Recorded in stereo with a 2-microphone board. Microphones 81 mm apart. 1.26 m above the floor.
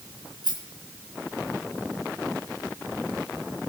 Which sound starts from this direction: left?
A rattle, at 0.4 s.